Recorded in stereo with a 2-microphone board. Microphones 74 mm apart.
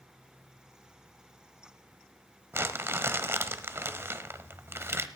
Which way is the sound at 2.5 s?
35° right (ahead or behind).